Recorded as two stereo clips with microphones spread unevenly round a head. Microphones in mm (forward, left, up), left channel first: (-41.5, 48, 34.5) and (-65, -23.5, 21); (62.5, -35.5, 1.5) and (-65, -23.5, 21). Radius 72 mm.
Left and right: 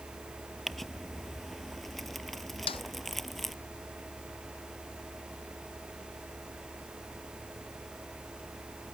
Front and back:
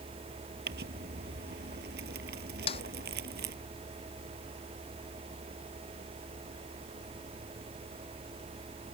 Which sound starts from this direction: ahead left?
A snare drum, at 2.7 s.